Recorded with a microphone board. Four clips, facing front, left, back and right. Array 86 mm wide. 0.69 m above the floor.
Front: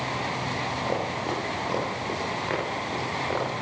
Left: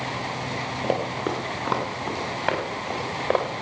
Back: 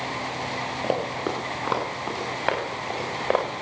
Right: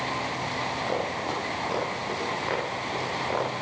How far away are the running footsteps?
About 6.5 m.